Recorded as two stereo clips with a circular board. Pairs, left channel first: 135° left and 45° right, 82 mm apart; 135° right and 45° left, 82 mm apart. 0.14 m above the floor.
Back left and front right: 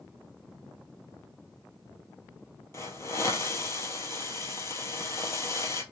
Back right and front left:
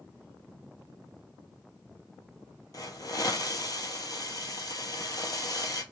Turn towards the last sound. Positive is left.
turn(degrees=-175)